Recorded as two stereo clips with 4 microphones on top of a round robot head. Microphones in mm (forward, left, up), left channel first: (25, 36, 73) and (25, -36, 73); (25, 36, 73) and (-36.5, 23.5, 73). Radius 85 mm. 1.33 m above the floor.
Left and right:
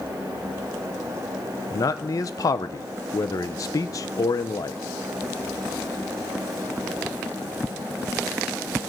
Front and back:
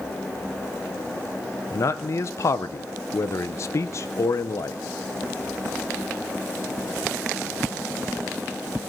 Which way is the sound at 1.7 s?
50° left.